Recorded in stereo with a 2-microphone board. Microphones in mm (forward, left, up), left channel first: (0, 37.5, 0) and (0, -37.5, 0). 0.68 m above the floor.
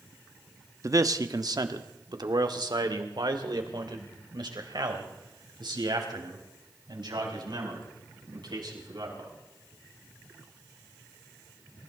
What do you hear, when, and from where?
0.8 s a man speaking: 45° right (ahead or behind), 0.8 m; by 9.3 s 75° right (ahead or behind), 5.5 m